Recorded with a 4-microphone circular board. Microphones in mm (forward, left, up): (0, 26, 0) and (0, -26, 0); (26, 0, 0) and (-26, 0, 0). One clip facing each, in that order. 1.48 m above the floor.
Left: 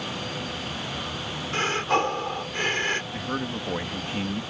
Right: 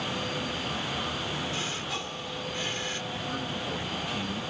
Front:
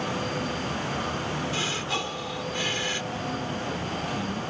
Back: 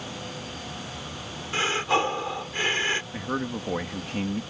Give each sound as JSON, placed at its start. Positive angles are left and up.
{"t": 1.5, "sound": "breathing", "azimuth_deg": 125}
{"t": 3.1, "sound": "a man speaking", "azimuth_deg": 145}